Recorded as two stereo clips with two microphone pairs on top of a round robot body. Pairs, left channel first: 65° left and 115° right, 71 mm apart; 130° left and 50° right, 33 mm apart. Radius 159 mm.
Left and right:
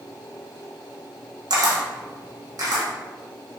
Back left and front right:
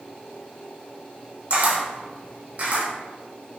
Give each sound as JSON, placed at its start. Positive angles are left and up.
{"t": 1.5, "sound": "a camera shutter", "azimuth_deg": -90, "distance_m": 1.8}